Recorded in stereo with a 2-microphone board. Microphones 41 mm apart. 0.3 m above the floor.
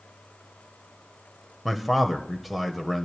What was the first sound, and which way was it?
A man speaking, centre (ahead or behind).